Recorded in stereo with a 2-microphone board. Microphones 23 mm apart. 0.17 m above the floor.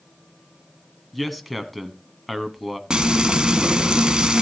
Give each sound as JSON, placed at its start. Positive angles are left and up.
{"t": 1.1, "sound": "a man speaking", "side_deg": 0, "distance_m": 1.4}
{"t": 2.9, "sound": "frying", "side_deg": -35, "distance_m": 1.6}